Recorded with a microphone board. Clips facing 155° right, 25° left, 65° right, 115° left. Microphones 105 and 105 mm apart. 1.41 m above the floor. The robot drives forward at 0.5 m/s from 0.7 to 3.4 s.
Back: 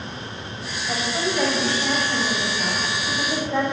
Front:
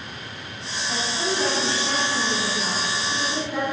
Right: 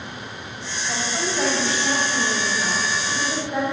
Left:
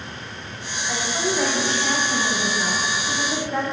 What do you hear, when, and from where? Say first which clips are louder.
0.9 s a woman speaking: back 2 dB, left 2 dB; 155° right, 6 m; by 3.6 s 160° right, 7.5 m